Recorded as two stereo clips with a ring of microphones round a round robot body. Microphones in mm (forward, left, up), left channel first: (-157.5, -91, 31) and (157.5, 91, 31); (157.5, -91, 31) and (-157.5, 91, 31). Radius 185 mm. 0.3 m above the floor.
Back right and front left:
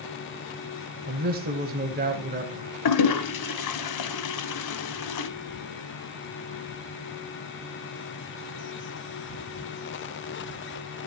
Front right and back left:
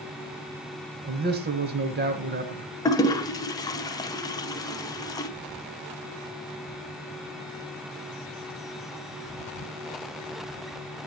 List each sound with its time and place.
1.1 s a man speaking: 90° left, 1.6 m
2.9 s a toilet flushing: 110° right, 1.0 m